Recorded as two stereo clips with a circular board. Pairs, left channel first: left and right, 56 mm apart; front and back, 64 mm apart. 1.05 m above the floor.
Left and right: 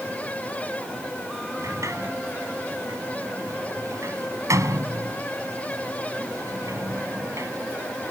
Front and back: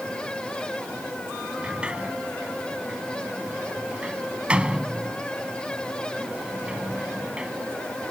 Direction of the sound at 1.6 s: 105° right.